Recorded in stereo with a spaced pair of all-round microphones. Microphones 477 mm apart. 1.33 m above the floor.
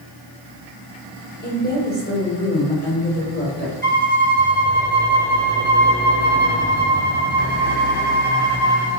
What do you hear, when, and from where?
1.4 s a woman speaking: 20° left (ahead or behind), 4 m
3.8 s a violin: 80° right, 2 m